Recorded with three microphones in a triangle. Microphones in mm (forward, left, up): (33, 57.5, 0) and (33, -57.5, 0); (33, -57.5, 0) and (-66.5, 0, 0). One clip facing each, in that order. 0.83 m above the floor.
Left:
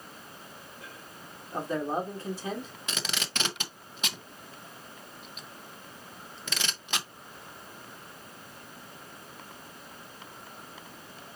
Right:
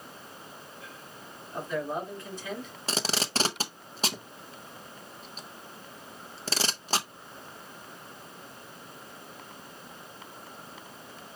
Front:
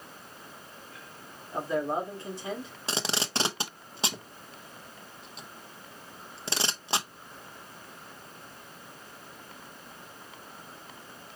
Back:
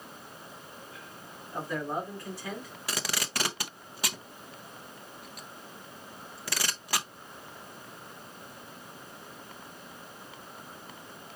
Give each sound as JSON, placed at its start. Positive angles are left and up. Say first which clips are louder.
{"t": 1.5, "sound": "a man speaking", "louder": "left 2 dB, front 4 dB", "azimuth_deg": 35, "distance_m": 1.9}
{"t": 2.9, "sound": "tape being pulled", "louder": "right 7 dB, front 3 dB", "azimuth_deg": -75, "distance_m": 0.7}